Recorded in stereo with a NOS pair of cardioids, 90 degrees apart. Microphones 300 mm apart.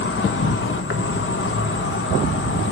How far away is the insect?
About 1.7 m.